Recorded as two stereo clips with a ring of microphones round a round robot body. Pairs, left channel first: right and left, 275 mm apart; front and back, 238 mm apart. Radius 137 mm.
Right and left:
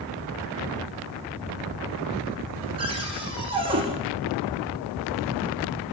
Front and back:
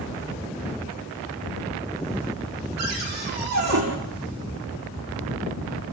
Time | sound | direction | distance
2.8 | a cupboard door | 165° left | 5.5 m